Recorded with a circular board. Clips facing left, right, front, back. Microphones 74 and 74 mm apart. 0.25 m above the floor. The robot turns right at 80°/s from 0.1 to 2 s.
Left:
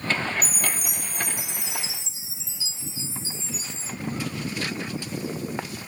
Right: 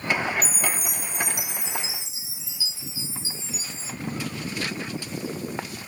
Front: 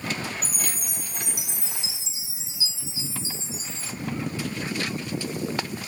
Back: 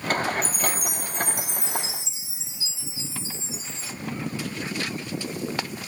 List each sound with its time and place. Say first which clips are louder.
0.4 s a chime: right 2 dB, back 7 dB; 65° left, 1.8 m; by 3.9 s 170° right, 1.8 m